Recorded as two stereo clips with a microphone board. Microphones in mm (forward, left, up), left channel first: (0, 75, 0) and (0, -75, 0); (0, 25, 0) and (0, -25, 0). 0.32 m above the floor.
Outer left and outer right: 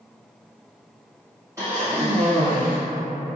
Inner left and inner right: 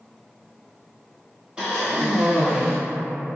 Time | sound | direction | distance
1.6 | a cough | 20° right (ahead or behind) | 1.3 m